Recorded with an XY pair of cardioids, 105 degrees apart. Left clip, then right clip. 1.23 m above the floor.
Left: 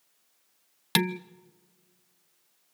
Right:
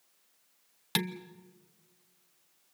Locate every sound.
0.9 s dishes clattering: 40° left, 0.7 m